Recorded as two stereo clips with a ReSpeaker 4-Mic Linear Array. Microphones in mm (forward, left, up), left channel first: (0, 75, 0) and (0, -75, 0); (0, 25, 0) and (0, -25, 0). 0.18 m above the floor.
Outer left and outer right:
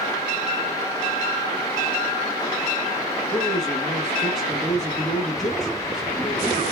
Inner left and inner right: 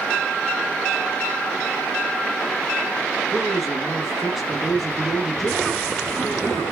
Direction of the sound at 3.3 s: Centre (ahead or behind).